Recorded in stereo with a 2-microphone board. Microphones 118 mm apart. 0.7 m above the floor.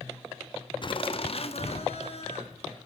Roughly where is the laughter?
Left.